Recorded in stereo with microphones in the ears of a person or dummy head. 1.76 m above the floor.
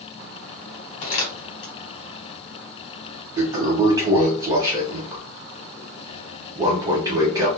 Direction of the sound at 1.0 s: 45° left (ahead or behind).